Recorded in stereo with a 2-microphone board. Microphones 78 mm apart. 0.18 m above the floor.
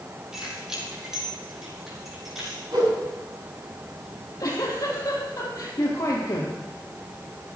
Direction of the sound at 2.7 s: 65° right (ahead or behind).